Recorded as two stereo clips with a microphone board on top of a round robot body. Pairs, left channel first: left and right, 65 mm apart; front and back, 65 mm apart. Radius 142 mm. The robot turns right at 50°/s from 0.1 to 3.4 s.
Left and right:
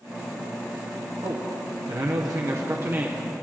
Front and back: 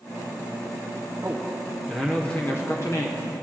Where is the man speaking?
120° right, 1.3 m; by 3.2 s 20° right, 1.3 m.